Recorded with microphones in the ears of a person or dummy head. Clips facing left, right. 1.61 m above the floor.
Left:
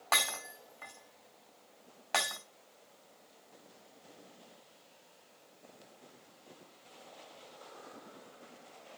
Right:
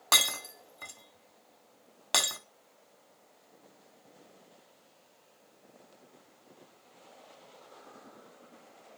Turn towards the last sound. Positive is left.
turn(degrees=-45)  # may be behind; listen again after turning